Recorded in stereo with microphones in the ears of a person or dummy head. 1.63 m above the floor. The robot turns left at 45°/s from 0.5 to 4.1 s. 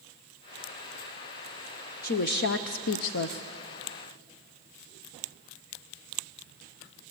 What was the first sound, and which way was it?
A woman speaking, 130° left.